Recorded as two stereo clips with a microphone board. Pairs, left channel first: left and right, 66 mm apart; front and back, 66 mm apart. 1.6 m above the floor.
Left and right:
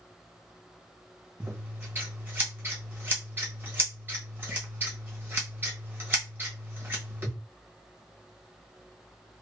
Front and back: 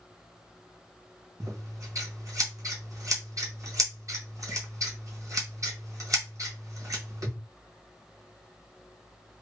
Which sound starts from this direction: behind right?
Scissors, at 1.4 s.